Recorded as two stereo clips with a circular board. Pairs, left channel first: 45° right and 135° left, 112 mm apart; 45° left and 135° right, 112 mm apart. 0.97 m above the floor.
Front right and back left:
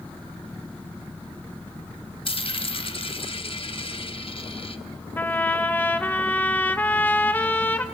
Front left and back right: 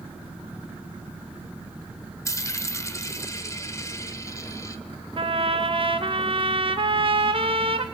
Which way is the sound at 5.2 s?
115° right.